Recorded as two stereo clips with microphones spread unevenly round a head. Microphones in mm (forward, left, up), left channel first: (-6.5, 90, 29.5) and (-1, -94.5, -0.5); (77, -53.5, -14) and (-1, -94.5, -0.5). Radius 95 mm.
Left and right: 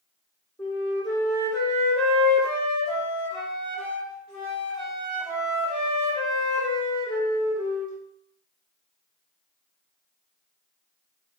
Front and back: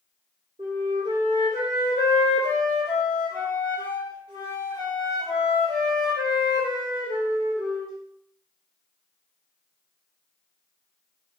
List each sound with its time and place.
0.6 s a flute: 175° left, 2.5 m